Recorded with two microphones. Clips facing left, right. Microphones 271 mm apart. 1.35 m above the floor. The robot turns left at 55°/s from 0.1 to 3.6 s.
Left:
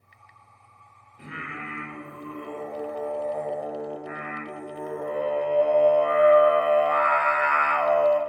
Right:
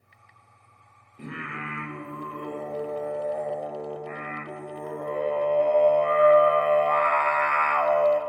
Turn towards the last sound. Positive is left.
turn(degrees=175)